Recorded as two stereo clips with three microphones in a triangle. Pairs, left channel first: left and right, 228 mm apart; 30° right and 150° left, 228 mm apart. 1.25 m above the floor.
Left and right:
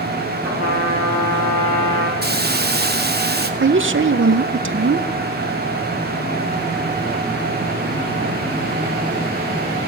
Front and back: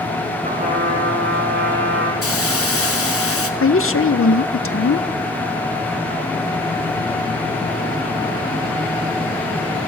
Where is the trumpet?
100° left, 4.5 m.